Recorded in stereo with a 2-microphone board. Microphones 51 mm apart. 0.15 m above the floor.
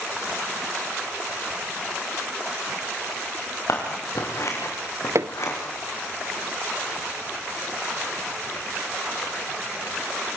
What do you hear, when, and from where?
3.7 s scissors: 65° left (ahead or behind), 7.5 m
5.2 s hammering: 60° right (ahead or behind), 0.8 m